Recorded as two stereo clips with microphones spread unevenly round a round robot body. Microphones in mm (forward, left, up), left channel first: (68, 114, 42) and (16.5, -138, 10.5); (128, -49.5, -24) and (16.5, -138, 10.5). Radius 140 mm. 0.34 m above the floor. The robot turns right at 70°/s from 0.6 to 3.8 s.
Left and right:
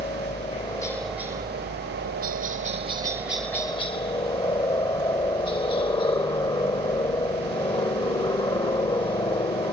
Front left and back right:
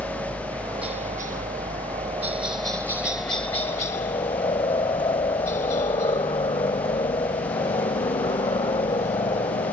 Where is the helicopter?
145° left; by 9.7 s 10° left.